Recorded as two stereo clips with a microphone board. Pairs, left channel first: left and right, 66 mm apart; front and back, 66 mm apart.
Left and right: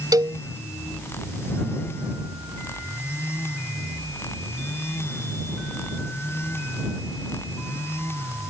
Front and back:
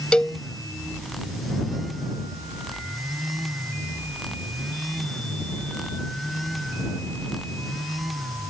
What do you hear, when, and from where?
0.1 s a cowbell: 75° right